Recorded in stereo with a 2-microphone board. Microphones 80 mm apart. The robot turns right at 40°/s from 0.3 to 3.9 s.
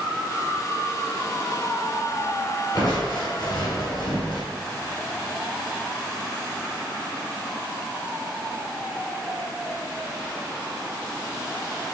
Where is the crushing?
50° left, 1.7 m; by 4.4 s 100° left, 1.7 m.